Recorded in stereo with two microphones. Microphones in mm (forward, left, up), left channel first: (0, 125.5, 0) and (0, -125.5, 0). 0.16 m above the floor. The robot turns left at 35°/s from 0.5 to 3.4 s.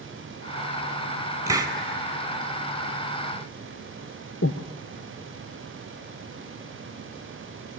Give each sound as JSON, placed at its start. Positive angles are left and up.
{"t": 1.5, "sound": "a hiss", "side_deg": -15, "distance_m": 0.9}
{"t": 4.4, "sound": "breathing", "side_deg": 70, "distance_m": 0.7}